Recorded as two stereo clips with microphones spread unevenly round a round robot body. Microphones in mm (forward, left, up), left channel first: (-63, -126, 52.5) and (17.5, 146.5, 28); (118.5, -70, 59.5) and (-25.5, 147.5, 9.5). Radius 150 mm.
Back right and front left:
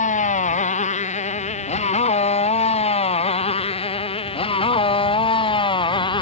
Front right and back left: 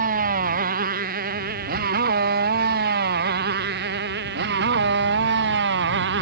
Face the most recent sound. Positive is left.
turn(degrees=180)